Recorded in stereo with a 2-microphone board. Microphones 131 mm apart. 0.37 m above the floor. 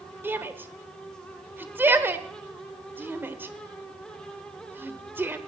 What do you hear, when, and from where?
0.2 s a shout: 15° right (ahead or behind), 1.1 m